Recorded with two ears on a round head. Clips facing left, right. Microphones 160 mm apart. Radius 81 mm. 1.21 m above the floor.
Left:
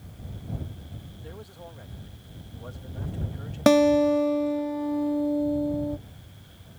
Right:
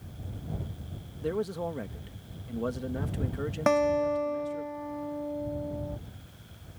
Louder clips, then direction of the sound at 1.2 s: Right 16 dB; 70° right (ahead or behind).